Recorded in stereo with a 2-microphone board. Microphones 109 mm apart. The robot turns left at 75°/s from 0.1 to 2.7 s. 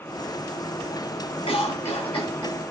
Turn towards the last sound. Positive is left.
turn(degrees=20)